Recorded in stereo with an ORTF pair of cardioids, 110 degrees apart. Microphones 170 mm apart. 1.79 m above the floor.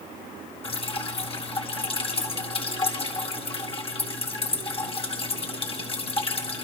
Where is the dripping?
35° left, 6.5 m.